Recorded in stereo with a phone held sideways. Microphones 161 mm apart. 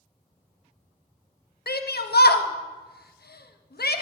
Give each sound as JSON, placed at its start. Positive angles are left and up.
{"t": 1.7, "sound": "a shout", "side_deg": 80, "distance_m": 0.7}